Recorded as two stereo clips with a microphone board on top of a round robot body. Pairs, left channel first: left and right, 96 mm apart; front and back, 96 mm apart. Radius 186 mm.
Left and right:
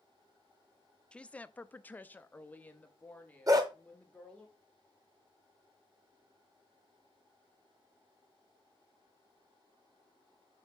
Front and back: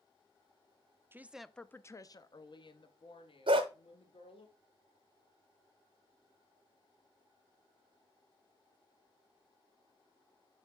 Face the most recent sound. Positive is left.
turn(degrees=-145)